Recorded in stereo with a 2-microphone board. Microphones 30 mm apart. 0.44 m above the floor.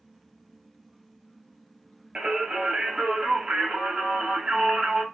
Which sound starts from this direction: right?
Singing, at 2.1 s.